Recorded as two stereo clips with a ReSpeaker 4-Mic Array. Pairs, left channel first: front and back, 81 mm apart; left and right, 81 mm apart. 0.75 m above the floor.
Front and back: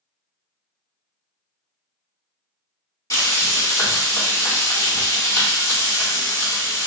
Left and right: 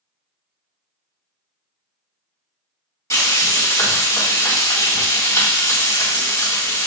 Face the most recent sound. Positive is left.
turn(degrees=45)